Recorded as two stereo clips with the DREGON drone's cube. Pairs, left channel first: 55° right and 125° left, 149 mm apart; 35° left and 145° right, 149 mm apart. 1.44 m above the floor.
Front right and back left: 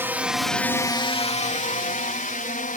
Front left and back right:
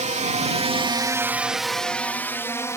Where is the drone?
165° right; by 2.8 s 35° right.